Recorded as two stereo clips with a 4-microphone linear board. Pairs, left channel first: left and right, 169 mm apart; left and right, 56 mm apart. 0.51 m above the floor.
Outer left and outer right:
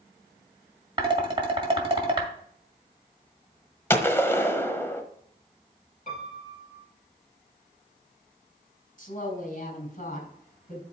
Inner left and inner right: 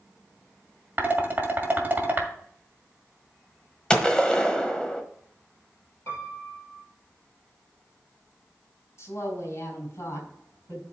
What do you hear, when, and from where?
1.0 s dishes clattering: 30° right (ahead or behind), 1.9 m
3.9 s a gunshot: 15° left (ahead or behind), 1.2 m
6.1 s a piano: 50° left (ahead or behind), 5 m
9.0 s a woman speaking: 50° left (ahead or behind), 4.5 m